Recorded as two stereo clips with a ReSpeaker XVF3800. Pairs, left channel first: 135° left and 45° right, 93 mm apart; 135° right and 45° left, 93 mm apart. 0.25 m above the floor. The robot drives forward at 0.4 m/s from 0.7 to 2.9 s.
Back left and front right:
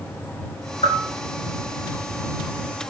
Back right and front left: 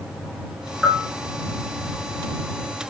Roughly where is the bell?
Behind left.